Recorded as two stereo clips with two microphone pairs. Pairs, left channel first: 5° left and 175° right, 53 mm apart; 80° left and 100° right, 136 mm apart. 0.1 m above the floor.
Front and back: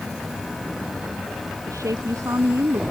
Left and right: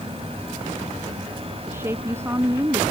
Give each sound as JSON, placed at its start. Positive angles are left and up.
{"t": 1.7, "sound": "a woman speaking", "azimuth_deg": -170}